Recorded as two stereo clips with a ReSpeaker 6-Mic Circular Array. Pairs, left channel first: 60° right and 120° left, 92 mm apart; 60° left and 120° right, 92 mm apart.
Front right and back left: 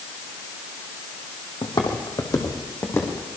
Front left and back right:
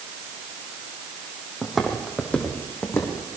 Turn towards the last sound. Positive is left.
turn(degrees=5)